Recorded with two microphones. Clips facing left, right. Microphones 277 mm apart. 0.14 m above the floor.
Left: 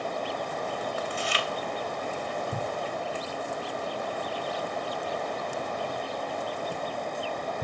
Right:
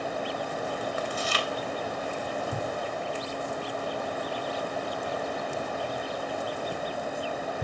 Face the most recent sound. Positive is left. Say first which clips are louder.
# right 1 dB
turn(degrees=-50)  # may be behind; listen again after turning